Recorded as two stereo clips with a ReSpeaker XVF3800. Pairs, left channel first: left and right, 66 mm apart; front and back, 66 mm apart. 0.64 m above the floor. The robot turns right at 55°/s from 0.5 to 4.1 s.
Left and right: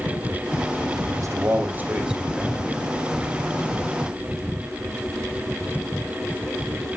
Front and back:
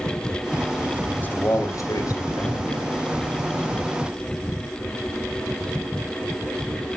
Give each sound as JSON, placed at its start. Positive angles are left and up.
{"t": 1.1, "sound": "a man speaking", "azimuth_deg": -65, "distance_m": 2.5}